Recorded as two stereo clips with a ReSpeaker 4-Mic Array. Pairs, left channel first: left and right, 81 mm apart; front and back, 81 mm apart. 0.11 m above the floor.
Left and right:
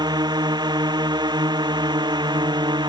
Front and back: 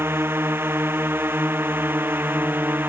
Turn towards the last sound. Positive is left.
turn(degrees=-115)